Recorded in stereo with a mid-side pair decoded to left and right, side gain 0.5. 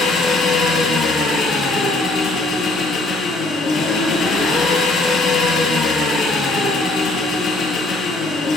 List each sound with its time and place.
0.0 s an engine running: 50° left, 7 m